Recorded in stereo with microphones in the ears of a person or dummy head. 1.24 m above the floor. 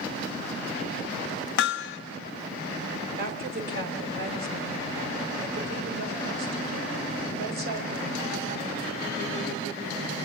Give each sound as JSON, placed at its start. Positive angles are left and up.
{"t": 1.6, "sound": "hammering", "side_deg": 75, "distance_m": 1.1}
{"t": 3.2, "sound": "a woman speaking", "side_deg": -50, "distance_m": 4.5}